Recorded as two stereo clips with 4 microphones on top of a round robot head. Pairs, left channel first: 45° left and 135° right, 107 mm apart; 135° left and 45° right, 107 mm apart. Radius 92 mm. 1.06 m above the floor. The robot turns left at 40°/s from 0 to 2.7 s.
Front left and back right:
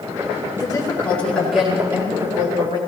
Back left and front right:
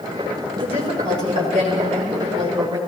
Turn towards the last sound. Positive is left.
turn(degrees=-95)